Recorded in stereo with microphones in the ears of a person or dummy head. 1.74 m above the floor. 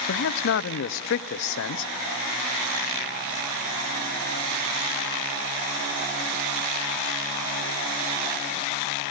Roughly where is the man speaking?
Left.